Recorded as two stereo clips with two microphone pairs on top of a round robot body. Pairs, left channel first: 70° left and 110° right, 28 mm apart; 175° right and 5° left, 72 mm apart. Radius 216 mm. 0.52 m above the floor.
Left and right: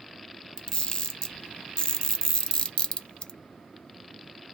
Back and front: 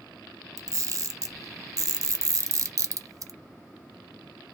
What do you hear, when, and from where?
0.6 s a camera shutter: 35° left, 0.8 m